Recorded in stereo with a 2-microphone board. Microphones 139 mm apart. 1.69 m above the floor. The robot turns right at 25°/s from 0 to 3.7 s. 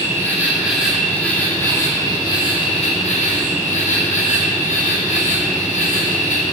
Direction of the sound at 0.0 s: 20° right.